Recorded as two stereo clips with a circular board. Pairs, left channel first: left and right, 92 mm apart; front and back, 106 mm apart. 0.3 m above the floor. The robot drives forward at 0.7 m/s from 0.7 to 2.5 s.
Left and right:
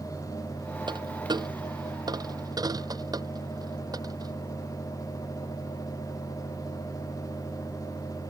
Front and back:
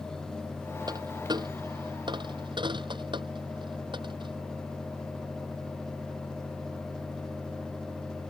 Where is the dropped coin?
130° right; by 4.4 s 135° right.